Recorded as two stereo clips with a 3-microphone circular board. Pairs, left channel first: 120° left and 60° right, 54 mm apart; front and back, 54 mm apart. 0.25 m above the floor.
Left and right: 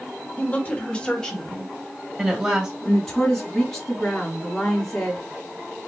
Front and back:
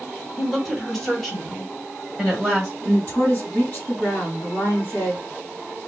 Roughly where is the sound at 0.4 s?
Left.